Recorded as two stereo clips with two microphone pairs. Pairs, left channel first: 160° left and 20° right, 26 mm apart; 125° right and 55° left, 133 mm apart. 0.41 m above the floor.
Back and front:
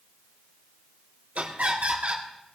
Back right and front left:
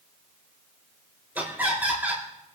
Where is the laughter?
20° right, 6.5 m.